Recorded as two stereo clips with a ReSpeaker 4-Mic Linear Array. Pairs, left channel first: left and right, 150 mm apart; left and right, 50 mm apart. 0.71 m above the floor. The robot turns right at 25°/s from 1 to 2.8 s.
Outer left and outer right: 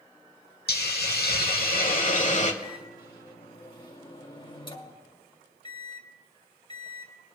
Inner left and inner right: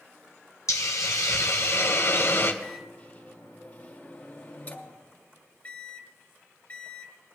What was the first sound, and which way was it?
A hiss, 95° left.